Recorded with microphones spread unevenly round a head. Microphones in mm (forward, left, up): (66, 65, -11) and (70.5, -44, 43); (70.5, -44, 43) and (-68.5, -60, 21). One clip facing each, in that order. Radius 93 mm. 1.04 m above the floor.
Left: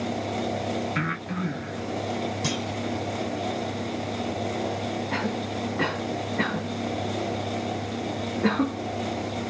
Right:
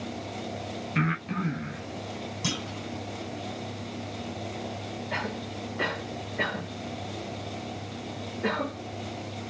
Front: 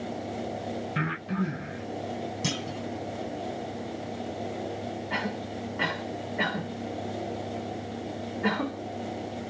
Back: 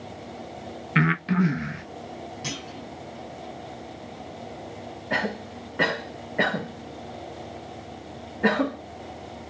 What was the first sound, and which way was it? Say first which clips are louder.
Breathing: even, back 12 dB; 160° right.